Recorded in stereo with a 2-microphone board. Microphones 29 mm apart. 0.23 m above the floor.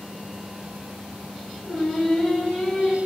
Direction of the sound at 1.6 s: 25° left (ahead or behind).